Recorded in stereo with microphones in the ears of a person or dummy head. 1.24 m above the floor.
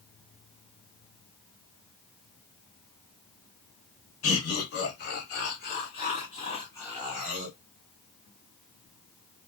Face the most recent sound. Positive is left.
turn(degrees=-15)  # may be behind; listen again after turning